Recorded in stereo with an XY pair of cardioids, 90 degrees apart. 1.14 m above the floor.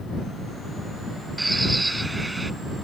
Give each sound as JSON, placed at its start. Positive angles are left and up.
{"t": 1.4, "sound": "a bird", "azimuth_deg": -10}